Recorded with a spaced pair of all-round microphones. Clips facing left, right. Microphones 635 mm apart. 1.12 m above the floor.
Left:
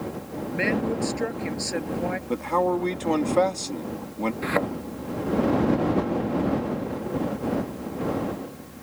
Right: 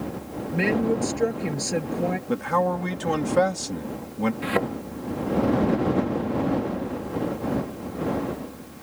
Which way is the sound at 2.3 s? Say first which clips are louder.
Left 4 dB; 40° right (ahead or behind).